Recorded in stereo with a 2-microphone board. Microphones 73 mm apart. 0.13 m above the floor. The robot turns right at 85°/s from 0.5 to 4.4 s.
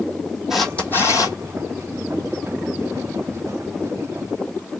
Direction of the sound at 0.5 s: 5° right.